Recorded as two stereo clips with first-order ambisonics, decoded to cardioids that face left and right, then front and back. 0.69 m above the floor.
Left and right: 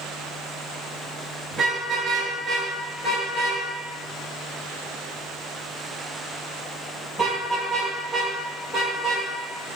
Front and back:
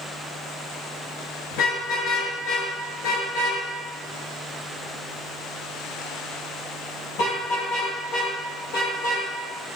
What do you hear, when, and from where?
1.5 s a car horn: 10° right, 5.5 m; by 9.3 s 10° left, 11.5 m